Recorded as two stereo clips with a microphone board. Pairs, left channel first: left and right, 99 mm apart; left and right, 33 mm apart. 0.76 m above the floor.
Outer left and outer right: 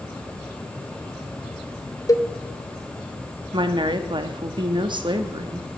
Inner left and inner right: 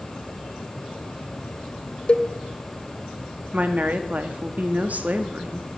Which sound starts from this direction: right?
A woman speaking, at 3.5 s.